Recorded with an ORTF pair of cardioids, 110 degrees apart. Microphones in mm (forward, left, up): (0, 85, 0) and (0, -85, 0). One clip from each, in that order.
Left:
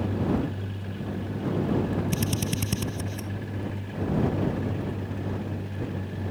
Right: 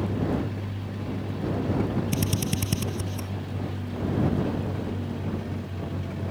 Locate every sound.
2.1 s a drill: 5° right